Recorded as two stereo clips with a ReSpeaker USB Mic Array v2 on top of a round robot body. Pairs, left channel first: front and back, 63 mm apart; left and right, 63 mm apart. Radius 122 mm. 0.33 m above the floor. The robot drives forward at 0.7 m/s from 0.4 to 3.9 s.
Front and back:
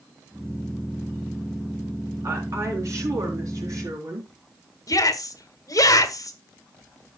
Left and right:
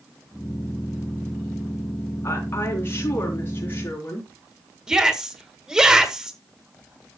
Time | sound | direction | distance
2.2 | a woman speaking | 140° left | 4 m
4.9 | a shout | 10° right | 2 m